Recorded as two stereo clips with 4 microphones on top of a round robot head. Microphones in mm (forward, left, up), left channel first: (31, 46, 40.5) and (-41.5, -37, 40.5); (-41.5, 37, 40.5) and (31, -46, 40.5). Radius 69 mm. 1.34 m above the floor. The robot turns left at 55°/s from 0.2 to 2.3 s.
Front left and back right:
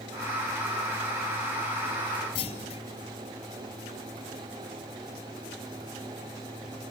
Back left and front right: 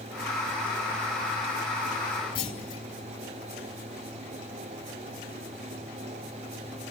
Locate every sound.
2.4 s a clunk: 90° left, 3 m